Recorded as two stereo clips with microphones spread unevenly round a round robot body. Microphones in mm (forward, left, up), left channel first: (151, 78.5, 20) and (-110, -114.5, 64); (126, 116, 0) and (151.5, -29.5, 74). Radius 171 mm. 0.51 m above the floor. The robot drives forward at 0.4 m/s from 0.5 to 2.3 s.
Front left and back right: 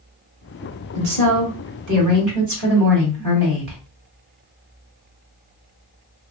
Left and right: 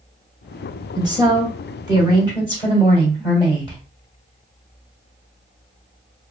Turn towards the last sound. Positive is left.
turn(degrees=-170)